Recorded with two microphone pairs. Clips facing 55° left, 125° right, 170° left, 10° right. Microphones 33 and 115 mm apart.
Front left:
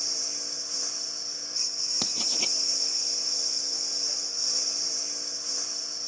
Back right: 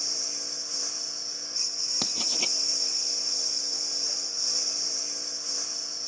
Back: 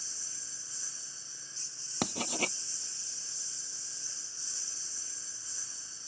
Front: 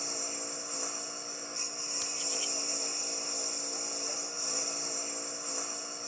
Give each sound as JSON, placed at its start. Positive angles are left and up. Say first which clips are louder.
{"t": 0.0, "sound": "a lawn mower", "louder": "even, front 17 dB", "azimuth_deg": -35}
{"t": 2.0, "sound": "writing", "louder": "back right 1 dB, back 10 dB", "azimuth_deg": 150}